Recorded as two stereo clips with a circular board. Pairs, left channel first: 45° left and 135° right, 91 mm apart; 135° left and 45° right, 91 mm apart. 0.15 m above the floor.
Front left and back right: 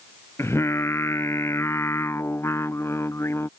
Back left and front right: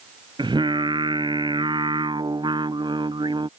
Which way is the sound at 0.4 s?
15° right.